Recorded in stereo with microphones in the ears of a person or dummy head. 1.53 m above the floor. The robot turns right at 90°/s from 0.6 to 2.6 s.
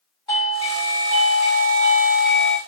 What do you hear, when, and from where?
0.3 s a doorbell: 160° left, 1.7 m; by 2.6 s 20° right, 1.7 m